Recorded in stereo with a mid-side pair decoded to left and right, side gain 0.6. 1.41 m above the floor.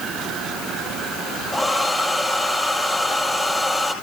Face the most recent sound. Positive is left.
turn(degrees=10)